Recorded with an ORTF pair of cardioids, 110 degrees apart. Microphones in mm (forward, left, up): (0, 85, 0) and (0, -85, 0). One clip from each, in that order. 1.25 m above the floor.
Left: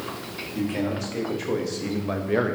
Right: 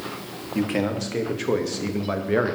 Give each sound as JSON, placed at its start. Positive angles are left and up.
{"t": 0.6, "sound": "a man speaking", "azimuth_deg": -35, "distance_m": 1.6}